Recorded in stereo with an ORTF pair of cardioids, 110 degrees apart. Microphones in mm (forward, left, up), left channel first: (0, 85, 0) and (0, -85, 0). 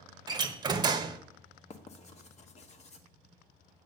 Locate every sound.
0.3 s a door slam: 25° right, 0.8 m
1.7 s writing: 40° left, 1.2 m